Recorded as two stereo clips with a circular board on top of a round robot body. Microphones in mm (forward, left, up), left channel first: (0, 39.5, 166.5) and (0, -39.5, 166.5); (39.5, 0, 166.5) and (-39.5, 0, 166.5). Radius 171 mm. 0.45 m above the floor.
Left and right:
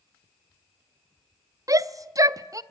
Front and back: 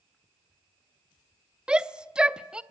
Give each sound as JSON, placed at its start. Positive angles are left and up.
{"t": 1.7, "sound": "a shout", "azimuth_deg": -105, "distance_m": 0.8}